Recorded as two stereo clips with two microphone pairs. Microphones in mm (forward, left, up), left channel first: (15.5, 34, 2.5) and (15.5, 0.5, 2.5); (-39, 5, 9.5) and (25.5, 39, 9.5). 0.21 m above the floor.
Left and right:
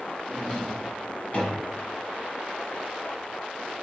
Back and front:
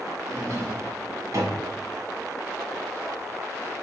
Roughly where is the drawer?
Ahead left.